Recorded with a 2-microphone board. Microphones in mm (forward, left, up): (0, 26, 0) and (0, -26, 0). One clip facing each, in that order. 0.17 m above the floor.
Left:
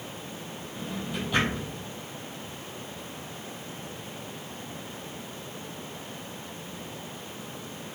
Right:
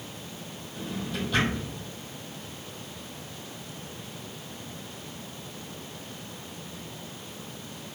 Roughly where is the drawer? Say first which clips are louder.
Right 1 dB; centre.